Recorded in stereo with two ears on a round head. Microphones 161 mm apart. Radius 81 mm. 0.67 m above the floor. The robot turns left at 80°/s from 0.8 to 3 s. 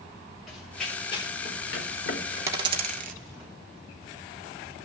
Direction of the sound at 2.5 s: 15° right (ahead or behind).